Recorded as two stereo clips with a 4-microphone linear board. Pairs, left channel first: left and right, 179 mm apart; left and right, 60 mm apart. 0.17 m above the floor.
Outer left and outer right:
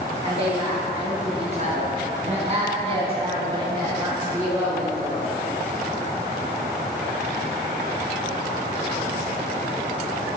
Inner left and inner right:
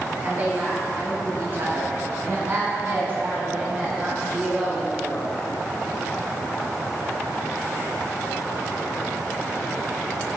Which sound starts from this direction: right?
A woman speaking, at 0.2 s.